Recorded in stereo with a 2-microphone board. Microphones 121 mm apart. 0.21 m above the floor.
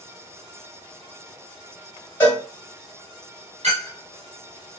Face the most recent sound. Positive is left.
turn(degrees=-65)  # may be behind; listen again after turning